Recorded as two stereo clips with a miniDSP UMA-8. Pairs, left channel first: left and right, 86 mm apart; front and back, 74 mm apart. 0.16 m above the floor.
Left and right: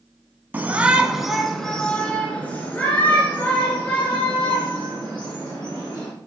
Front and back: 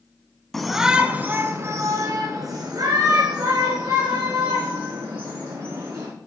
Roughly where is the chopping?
I don't hear chopping.